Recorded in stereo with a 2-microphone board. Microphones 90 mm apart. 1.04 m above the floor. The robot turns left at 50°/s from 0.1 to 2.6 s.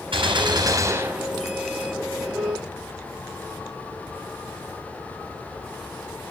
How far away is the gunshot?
About 3 m.